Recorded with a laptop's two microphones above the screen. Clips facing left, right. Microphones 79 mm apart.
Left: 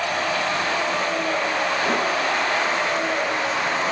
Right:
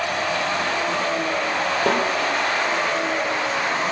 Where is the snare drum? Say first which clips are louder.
Right 4 dB; 65° right (ahead or behind), 4.5 m.